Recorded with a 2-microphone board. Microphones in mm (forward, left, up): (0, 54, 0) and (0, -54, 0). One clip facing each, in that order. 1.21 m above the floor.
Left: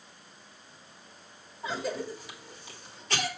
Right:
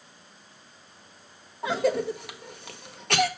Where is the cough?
65° right (ahead or behind), 0.9 m.